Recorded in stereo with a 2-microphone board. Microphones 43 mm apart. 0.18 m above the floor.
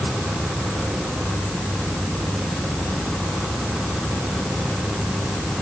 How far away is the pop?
I don't hear a pop.